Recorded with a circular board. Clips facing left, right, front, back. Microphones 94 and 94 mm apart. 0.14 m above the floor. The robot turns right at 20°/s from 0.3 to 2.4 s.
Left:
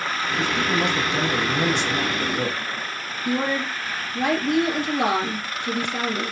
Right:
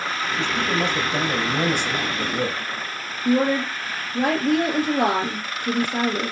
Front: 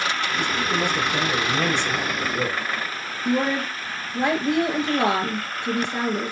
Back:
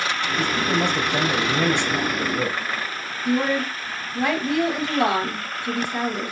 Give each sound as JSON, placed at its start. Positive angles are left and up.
{"t": 0.4, "sound": "a man speaking", "azimuth_deg": -140, "distance_m": 3.0}
{"t": 3.2, "sound": "a woman speaking", "azimuth_deg": -60, "distance_m": 2.5}